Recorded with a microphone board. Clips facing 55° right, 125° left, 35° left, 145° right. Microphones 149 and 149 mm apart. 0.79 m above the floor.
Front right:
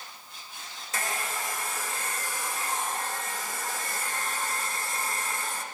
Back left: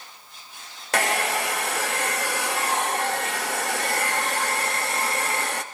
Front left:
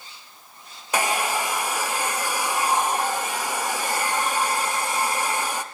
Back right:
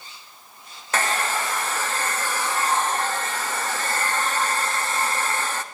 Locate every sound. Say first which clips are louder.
0.9 s a hair dryer: back left 10 dB, front left 1 dB; 110° left, 0.6 m